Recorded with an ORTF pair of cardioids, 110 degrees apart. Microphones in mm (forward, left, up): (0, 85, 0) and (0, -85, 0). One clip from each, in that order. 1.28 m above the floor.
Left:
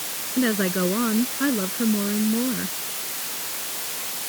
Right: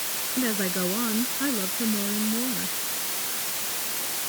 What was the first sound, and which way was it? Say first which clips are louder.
A woman speaking: left 5 dB; 35° left.